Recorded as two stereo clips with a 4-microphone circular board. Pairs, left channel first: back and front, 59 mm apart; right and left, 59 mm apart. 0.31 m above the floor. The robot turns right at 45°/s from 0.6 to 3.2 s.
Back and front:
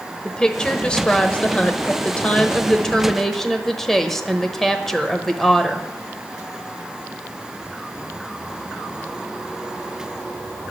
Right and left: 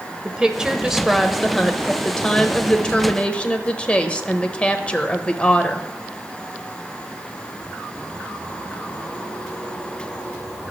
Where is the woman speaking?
135° left, 0.9 m; by 5.9 s 110° right, 0.9 m.